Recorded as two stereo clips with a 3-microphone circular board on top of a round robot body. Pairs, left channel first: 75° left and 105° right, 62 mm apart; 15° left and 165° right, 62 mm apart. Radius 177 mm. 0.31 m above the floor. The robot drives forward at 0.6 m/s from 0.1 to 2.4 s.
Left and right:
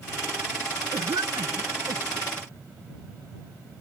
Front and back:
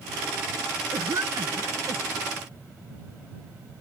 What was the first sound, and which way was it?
A cough, 125° right.